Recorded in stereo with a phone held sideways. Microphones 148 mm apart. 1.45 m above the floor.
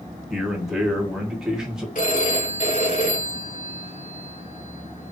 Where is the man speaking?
5° right (ahead or behind), 1.1 m.